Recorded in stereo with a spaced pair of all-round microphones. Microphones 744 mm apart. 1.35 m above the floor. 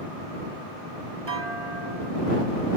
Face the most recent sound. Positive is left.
turn(degrees=-60)  # may be behind; listen again after turning